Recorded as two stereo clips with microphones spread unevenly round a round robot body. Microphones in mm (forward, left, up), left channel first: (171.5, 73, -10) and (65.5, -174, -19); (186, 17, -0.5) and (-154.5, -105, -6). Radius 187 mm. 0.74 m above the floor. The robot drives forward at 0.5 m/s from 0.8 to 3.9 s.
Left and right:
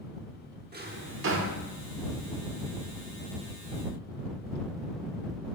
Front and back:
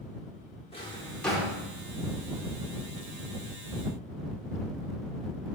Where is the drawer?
55° right, 1.0 m; by 1.6 s 80° right, 0.8 m.